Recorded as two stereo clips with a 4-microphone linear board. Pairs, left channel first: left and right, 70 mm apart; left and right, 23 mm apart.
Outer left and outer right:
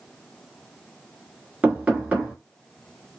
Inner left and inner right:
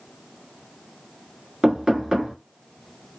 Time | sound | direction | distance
1.6 | knocking | 20° right (ahead or behind) | 1.2 m